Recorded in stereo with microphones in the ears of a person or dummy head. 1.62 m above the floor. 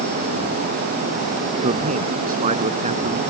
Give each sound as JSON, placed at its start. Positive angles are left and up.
{"t": 1.6, "sound": "a man speaking", "side_deg": -40}